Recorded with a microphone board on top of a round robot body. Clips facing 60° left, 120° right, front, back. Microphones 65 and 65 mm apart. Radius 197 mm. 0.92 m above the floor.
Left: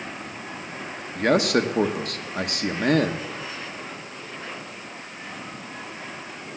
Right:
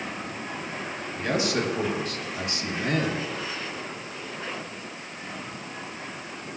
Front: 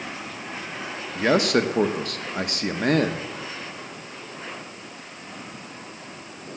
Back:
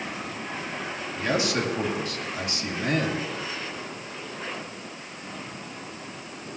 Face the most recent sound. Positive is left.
turn(degrees=30)